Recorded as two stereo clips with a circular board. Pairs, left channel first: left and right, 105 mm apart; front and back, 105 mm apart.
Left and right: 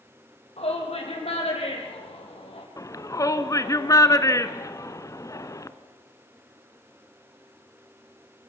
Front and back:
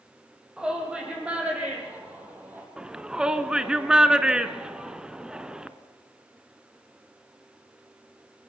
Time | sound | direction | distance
0.6 | a shout | 100° left | 6 m
2.8 | a shout | 105° left | 1.2 m